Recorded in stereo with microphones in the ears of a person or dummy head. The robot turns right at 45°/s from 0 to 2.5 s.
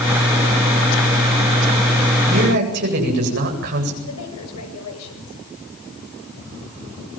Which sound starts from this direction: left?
A woman speaking, at 4.0 s.